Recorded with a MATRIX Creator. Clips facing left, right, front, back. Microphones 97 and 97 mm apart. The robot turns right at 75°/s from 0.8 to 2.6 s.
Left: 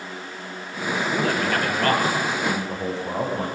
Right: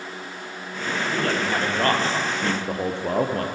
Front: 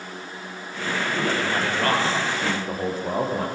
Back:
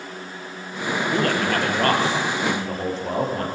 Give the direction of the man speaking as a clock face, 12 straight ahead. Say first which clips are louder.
Left 1 dB, back 4 dB; 7 o'clock.